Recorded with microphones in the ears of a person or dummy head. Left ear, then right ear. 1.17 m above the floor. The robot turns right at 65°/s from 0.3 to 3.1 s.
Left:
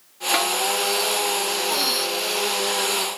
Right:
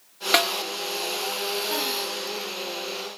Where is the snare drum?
30° right (ahead or behind), 0.9 m; by 0.6 s 20° right (ahead or behind), 0.9 m.